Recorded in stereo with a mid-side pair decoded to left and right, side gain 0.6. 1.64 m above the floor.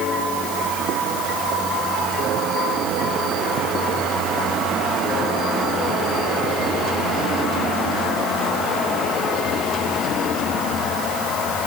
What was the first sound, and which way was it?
Only background noise.